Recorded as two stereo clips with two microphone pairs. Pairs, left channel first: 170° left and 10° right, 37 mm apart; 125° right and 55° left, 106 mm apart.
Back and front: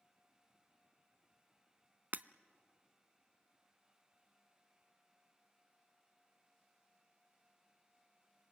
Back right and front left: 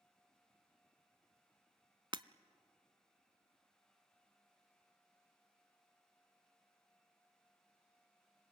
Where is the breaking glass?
15° left, 0.5 m.